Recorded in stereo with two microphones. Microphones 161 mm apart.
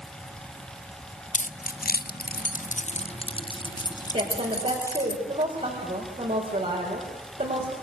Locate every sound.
1.3 s keys jangling: 50° left (ahead or behind), 0.7 m; by 5.1 s 15° left (ahead or behind), 2.0 m
4.1 s a woman speaking: 45° right (ahead or behind), 5 m